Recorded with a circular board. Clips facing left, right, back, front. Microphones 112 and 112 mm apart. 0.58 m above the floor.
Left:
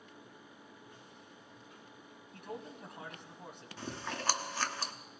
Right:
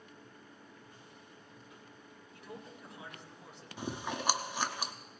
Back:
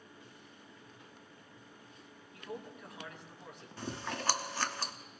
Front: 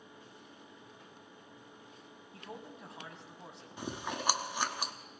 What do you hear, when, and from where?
2.3 s a man speaking: 60° left, 3.5 m
3.8 s chewing: 45° right, 0.7 m